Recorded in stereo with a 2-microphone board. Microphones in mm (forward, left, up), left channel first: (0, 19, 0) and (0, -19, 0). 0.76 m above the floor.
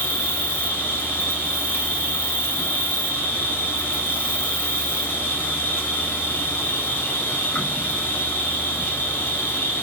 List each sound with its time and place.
0.0 s an insect: 70° left (ahead or behind), 1.7 m